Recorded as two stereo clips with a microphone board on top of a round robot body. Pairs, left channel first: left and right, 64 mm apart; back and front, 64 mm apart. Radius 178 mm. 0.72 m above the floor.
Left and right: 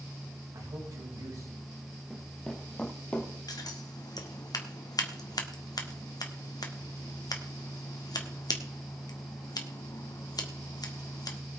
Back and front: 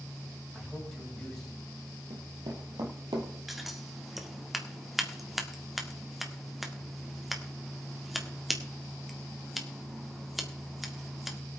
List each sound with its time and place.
0.5 s a man speaking: 95° right, 5 m
2.1 s running footsteps: straight ahead, 1.1 m; by 3.3 s 30° left, 1.6 m
3.5 s scissors: 90° left, 1.8 m